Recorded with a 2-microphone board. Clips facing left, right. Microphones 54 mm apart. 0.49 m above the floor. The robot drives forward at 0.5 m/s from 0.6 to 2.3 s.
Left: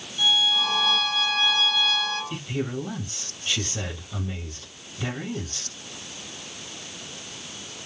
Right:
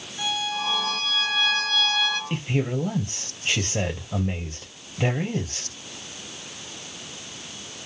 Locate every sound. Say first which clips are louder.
0.2 s a violin: left 4 dB; 55° right (ahead or behind), 2.5 m; by 2.2 s 75° right (ahead or behind), 2 m
2.3 s a man speaking: right 3 dB; 65° right (ahead or behind), 2.5 m